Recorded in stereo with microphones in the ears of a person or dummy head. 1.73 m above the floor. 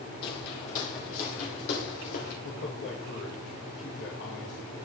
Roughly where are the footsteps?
Left.